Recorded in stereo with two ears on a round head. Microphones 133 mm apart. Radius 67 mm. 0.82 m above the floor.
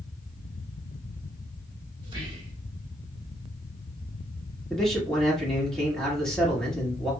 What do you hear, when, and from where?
2.0 s whispering: 35° right (ahead or behind), 1.1 m
4.7 s a man speaking: 5° left (ahead or behind), 1.8 m